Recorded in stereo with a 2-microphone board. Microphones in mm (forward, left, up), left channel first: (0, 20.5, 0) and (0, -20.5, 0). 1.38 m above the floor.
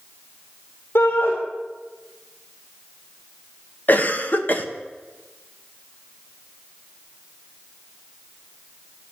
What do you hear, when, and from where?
0.9 s a shout: 85° left, 3 m
3.9 s a cough: 45° left (ahead or behind), 1.6 m